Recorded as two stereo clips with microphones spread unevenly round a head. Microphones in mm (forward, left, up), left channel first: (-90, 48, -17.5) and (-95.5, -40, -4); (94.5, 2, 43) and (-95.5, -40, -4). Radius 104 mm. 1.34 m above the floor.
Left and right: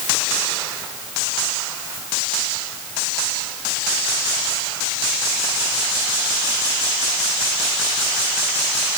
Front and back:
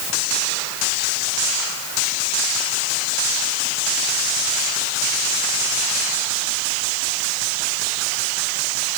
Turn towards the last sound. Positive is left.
No sound to turn to.